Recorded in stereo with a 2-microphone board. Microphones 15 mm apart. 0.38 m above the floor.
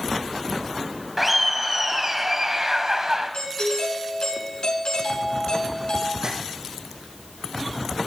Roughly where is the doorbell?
Left.